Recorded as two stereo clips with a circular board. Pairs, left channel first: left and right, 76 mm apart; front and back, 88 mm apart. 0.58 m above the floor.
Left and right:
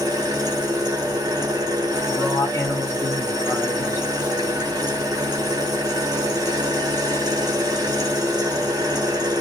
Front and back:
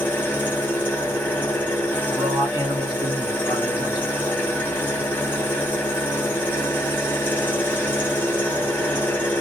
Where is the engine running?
65° right, 1.0 m.